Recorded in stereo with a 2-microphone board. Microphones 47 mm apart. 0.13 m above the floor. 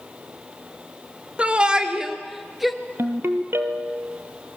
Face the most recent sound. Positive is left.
turn(degrees=-55)  # may be behind; listen again after turning